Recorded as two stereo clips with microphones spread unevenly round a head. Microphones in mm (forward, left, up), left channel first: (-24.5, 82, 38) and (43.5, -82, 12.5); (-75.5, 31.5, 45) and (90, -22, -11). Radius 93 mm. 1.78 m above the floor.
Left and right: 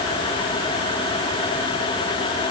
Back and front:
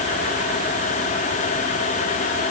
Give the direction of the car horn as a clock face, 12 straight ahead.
No car horn in this recording.